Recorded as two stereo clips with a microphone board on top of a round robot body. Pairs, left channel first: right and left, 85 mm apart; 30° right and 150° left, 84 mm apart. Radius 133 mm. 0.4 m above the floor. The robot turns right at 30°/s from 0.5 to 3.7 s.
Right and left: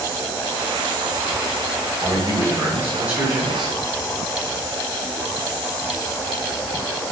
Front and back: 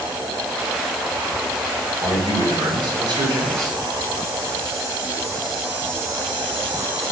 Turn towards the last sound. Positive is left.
turn(degrees=180)